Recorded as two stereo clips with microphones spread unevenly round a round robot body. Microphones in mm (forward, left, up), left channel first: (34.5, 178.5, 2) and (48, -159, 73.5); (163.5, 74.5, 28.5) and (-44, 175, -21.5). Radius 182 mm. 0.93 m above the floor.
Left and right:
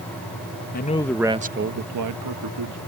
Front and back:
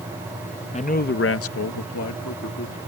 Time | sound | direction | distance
0.7 | a man speaking | 40° left | ?